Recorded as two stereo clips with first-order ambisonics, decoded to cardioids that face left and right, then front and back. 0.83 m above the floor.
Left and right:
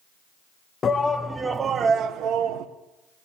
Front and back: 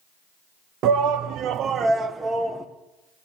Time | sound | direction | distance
0.8 | a shout | 155° left | 0.6 m